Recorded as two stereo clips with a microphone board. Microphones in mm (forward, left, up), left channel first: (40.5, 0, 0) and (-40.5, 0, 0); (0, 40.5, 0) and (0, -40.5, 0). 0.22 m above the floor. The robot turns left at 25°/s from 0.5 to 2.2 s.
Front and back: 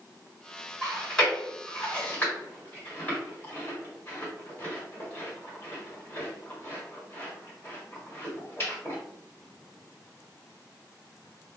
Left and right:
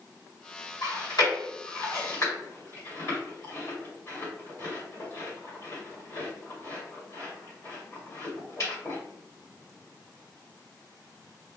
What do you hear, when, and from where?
0.8 s chewing: 85° left, 1.8 m; by 9.0 s 50° left, 1.8 m